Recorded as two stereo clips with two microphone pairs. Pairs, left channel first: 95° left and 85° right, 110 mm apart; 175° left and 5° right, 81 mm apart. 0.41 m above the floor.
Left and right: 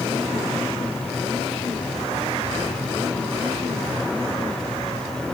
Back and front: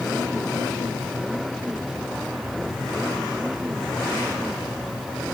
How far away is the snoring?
I don't hear snoring.